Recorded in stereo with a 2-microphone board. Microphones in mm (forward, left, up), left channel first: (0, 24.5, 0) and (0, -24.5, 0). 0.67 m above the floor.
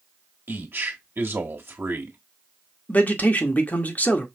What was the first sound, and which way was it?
A man speaking, 50° right (ahead or behind).